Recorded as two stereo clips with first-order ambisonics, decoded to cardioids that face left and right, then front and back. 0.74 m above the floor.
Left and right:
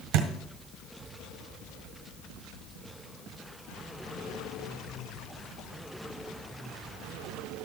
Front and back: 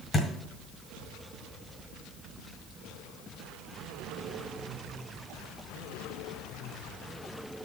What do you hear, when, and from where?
0.1 s a thud: 75° right, 1.5 m